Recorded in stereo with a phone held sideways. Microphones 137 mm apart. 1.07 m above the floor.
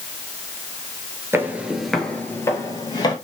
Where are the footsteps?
20° right (ahead or behind), 1.2 m; by 3.1 s 35° left (ahead or behind), 1.7 m.